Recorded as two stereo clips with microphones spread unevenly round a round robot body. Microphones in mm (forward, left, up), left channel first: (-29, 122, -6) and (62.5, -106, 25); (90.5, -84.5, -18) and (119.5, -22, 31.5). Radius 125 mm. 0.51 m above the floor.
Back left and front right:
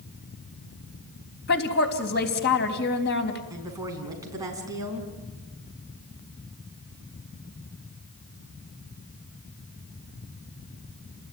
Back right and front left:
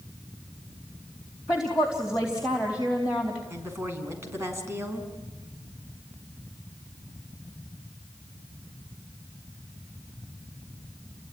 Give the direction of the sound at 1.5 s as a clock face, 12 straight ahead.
7 o'clock.